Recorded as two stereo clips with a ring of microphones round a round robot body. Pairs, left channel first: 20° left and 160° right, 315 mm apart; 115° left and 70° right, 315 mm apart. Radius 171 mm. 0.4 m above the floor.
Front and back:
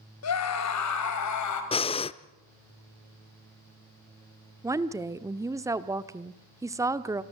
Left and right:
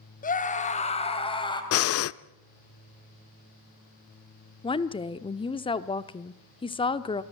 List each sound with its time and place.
0.2 s a scream: 50° left, 3 m; by 1.6 s 40° left, 3 m
1.7 s breathing: 90° left, 0.5 m
4.6 s a woman speaking: 145° left, 0.8 m